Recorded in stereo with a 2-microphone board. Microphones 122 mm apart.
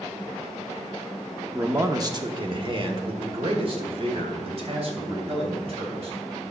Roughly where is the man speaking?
Centre.